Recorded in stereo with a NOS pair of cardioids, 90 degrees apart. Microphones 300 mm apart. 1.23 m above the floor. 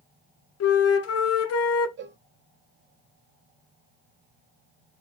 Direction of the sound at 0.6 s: 55° left.